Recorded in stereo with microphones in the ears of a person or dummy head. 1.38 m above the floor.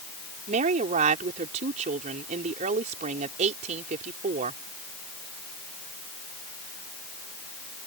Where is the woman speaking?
45° right (ahead or behind).